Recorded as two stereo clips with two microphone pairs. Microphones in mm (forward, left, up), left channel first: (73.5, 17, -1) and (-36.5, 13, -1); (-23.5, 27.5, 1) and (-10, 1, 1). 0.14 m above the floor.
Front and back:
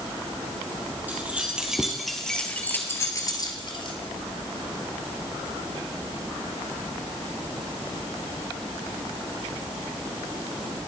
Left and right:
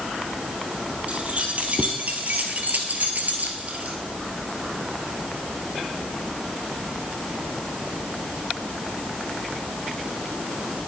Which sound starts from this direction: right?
Keys jangling, at 1.1 s.